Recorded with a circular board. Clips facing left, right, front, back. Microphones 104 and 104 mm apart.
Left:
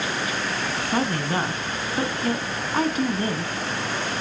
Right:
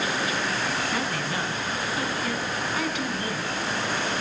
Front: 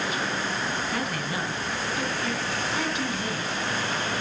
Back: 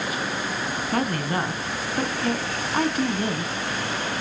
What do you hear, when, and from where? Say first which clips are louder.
0.9 s a woman speaking: left 4 dB, back 5 dB; 140° left, 2.5 m